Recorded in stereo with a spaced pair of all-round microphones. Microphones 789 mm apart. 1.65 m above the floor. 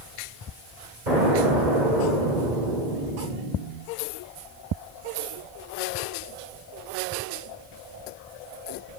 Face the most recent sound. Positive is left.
turn(degrees=-70)  # may be behind; listen again after turning